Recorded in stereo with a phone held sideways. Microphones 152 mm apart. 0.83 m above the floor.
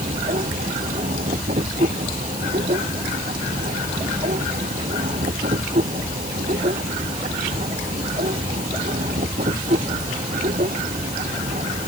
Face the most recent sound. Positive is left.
turn(degrees=-60)  # may be behind; listen again after turning